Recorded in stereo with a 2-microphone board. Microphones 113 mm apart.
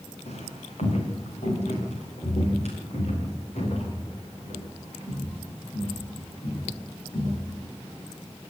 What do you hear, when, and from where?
0.3 s footsteps: 75° left (ahead or behind), 7 m; by 7.6 s 70° left (ahead or behind), 15 m